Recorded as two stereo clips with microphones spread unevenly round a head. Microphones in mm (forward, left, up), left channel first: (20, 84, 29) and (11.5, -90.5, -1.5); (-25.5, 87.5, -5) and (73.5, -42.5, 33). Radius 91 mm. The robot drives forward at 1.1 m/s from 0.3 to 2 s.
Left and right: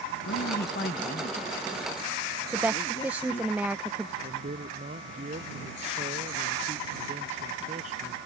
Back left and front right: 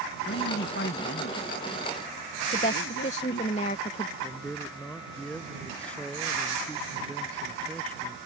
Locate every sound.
0.2 s a man speaking: 120° left; by 3.5 s 150° left
2.5 s a woman speaking: 175° right
4.2 s a man speaking: 150° right